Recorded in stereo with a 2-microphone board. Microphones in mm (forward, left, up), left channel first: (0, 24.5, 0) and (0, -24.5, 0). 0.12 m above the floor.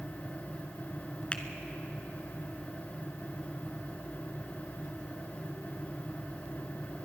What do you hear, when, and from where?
1.3 s a finger snap: 25° left (ahead or behind), 1.1 m